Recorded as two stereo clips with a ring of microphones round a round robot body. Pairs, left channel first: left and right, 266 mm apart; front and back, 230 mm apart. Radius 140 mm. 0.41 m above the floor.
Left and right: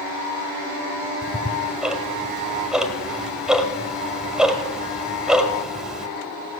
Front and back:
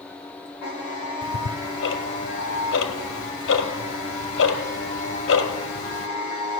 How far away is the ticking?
About 1.4 m.